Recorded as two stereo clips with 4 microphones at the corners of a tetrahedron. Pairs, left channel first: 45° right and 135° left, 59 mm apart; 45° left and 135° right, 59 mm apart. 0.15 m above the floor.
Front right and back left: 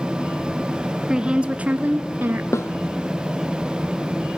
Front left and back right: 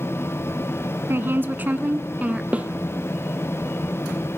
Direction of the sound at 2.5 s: 70° right.